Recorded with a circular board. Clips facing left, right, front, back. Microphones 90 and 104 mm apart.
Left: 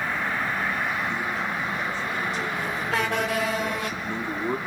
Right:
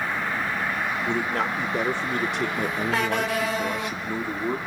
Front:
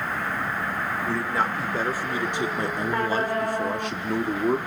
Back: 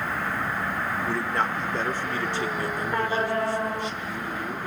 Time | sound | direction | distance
1.1 | a man speaking | 90° right | 2.5 m